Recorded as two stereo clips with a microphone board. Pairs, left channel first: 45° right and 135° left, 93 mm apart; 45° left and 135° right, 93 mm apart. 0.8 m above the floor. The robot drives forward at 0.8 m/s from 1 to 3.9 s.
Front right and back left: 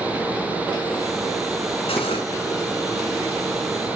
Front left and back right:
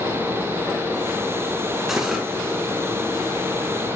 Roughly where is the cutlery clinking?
Ahead right.